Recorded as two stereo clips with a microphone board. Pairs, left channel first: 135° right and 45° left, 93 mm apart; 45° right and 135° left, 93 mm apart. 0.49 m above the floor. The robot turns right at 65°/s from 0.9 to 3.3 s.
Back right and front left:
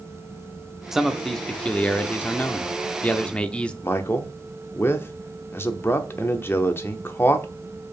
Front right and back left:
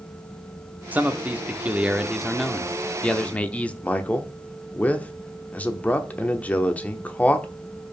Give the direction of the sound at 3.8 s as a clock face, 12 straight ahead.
3 o'clock.